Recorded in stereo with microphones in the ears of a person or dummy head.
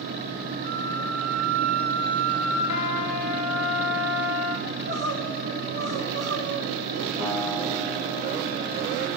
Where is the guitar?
75° right (ahead or behind), 2 m.